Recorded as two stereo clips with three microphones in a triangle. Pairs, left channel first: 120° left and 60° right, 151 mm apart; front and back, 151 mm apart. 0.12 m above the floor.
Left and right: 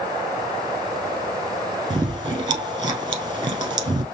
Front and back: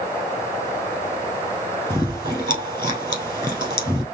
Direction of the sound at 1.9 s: 120° right.